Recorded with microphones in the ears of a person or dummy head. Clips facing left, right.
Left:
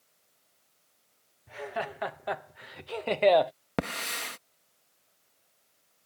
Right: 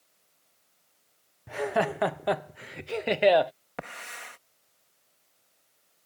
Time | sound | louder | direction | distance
1.5 | laughter | right 9 dB | 70° right (ahead or behind) | ?
3.8 | a hiss | left 9 dB | 60° left (ahead or behind) | ?